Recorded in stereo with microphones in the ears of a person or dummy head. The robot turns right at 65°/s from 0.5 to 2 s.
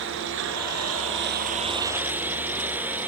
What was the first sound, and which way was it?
A lawn mower, 70° right (ahead or behind).